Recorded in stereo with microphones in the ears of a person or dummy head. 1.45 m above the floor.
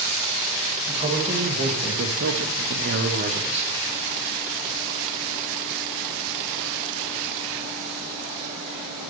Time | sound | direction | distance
0.9 | a man speaking | 30° right (ahead or behind) | 2 m